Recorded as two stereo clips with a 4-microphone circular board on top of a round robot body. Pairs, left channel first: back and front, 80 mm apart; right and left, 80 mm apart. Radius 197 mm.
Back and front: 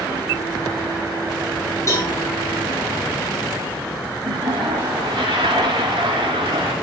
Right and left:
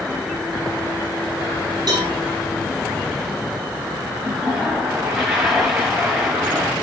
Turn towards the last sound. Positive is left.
turn(degrees=35)